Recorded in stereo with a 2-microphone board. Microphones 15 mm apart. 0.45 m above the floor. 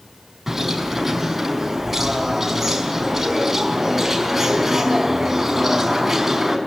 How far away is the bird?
About 5 m.